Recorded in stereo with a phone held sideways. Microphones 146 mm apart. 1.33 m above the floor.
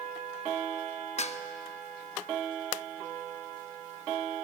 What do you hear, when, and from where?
1.2 s dishes clattering: 50° left (ahead or behind), 0.9 m